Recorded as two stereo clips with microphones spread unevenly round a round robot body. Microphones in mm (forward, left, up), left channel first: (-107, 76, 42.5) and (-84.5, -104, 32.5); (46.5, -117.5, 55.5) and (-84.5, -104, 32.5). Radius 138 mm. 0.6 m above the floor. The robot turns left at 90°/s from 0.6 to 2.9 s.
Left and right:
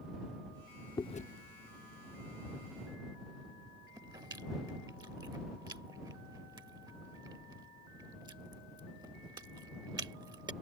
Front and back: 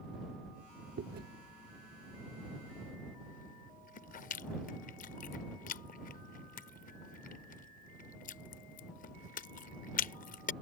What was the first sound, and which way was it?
Chewing, 170° left.